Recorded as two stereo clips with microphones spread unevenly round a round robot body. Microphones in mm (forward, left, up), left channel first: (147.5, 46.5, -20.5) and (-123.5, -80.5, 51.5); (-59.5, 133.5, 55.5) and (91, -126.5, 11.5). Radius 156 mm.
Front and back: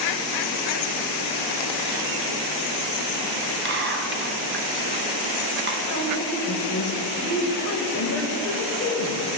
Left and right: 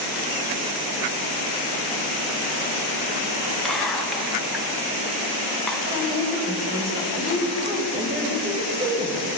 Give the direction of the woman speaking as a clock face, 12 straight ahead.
12 o'clock.